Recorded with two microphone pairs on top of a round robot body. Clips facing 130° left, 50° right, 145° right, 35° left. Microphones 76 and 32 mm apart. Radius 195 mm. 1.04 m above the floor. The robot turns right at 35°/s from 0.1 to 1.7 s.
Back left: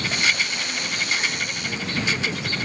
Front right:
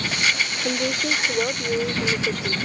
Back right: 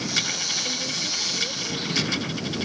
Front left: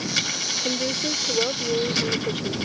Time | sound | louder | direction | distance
0.6 | a woman speaking | front right 5 dB, front left 3 dB | 35° right | ?